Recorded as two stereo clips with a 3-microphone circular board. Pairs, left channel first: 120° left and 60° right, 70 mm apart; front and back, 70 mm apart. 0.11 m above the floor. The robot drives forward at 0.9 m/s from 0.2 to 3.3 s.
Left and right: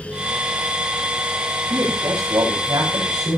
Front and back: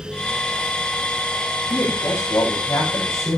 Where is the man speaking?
40° right, 8.5 m; by 3.4 s 50° right, 7.5 m.